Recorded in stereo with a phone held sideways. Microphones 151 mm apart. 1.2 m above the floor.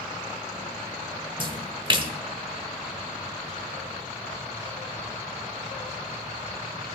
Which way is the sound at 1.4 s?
35° right (ahead or behind).